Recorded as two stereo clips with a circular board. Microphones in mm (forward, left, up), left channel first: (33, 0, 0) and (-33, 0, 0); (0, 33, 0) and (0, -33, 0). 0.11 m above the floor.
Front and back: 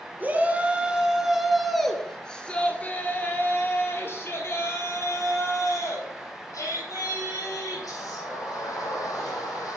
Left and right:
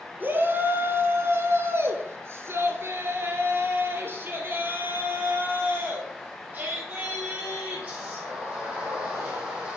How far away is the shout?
About 1.6 m.